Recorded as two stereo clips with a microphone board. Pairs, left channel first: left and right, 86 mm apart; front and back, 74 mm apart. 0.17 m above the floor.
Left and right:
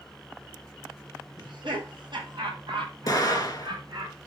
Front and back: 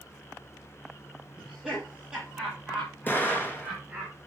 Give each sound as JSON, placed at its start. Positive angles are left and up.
{"t": 1.4, "sound": "laughter", "azimuth_deg": -95, "distance_m": 5.5}
{"t": 3.1, "sound": "an explosion", "azimuth_deg": 55, "distance_m": 2.0}